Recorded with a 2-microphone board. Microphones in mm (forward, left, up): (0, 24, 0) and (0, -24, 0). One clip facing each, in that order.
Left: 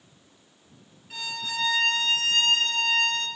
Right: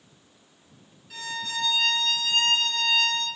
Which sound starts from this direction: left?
A violin, at 1.1 s.